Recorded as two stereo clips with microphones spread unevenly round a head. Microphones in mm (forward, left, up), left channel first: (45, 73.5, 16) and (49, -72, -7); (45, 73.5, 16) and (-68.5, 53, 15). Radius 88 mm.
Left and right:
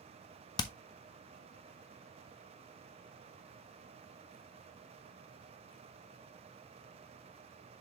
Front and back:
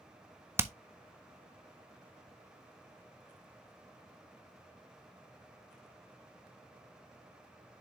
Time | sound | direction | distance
0.6 | hammering | 130° left | 0.6 m